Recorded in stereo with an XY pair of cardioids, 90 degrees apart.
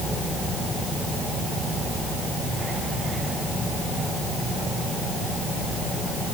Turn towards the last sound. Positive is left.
No sound to turn to.